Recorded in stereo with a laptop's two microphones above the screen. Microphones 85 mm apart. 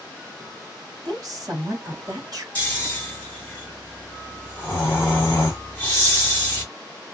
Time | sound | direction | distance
1.1 | a woman speaking | 55° right (ahead or behind) | 1.4 m
2.5 | snoring | 20° left (ahead or behind) | 1.3 m